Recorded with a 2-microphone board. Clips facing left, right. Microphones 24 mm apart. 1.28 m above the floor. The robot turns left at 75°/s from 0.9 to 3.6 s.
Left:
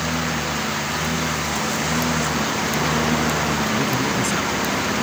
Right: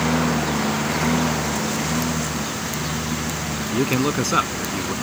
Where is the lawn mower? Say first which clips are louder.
Right 3 dB; 75° right (ahead or behind); by 5.0 s 60° left (ahead or behind).